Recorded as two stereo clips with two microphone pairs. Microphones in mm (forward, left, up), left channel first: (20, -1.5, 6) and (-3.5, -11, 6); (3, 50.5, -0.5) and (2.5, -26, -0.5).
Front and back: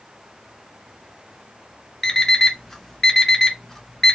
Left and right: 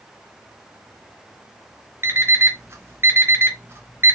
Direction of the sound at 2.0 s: 45° right.